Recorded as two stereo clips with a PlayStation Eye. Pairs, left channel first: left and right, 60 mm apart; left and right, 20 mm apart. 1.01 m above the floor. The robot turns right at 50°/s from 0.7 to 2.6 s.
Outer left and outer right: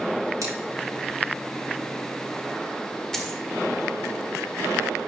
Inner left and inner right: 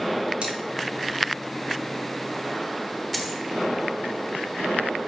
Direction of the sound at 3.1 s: 10° left (ahead or behind).